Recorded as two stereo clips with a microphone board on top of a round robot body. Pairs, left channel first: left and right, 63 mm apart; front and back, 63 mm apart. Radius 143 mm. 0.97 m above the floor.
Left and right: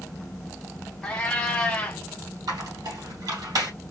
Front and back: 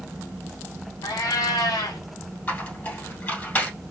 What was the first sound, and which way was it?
A cat meowing, 20° left.